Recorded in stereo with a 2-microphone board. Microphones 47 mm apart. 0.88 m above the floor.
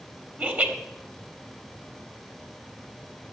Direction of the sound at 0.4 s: 35° right (ahead or behind).